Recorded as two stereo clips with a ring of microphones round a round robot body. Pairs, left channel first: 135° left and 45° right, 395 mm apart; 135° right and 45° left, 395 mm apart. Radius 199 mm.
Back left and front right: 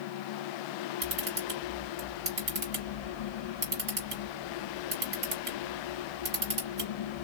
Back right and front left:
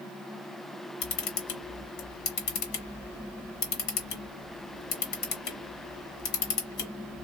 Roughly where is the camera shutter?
Right.